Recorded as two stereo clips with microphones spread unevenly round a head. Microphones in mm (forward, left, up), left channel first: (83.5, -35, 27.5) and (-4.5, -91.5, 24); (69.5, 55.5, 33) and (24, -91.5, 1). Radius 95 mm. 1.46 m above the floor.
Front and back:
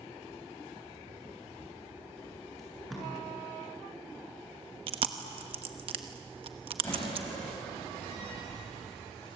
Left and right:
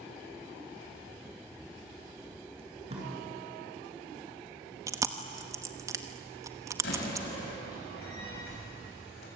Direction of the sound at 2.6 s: 55° right.